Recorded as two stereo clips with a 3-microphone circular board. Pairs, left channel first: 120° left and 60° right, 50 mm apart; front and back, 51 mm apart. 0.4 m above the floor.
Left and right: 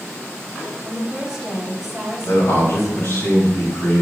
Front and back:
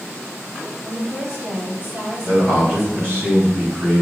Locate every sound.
0.8 s a woman speaking: 135° right, 1.8 m
2.2 s a man speaking: 140° left, 3 m